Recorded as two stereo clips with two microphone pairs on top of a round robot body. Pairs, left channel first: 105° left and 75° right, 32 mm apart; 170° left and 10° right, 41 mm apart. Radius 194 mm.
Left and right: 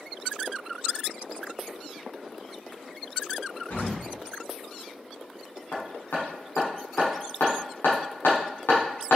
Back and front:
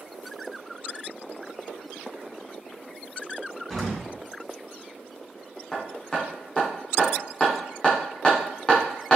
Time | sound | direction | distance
3.7 | an explosion | 90° left | 2 m
5.7 | hammering | 110° left | 0.6 m